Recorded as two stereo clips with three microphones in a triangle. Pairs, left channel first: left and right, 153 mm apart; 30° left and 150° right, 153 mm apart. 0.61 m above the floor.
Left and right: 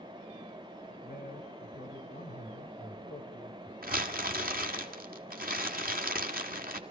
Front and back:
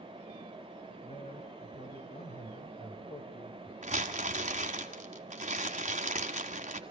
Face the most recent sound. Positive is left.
turn(degrees=-110)